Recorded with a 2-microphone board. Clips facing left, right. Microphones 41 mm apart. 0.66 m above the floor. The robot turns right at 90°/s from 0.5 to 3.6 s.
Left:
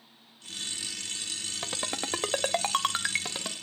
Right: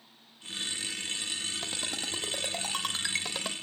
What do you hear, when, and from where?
1.6 s a ringtone: 15° left (ahead or behind), 1.0 m; by 3.5 s 10° right (ahead or behind), 1.0 m